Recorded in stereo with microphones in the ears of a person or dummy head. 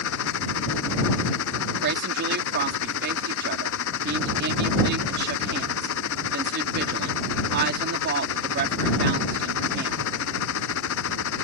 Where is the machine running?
70° left (ahead or behind).